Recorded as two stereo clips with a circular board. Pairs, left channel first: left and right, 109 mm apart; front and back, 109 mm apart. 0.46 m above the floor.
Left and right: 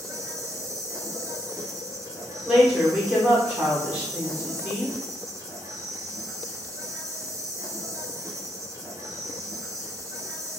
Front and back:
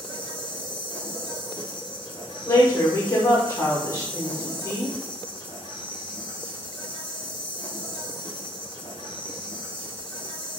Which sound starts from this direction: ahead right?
An insect, at 0.0 s.